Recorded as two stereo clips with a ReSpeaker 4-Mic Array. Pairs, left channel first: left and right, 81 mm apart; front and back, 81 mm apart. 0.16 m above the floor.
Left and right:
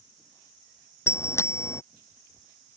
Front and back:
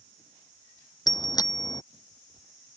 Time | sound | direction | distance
1.1 | a bicycle bell | 35° left | ?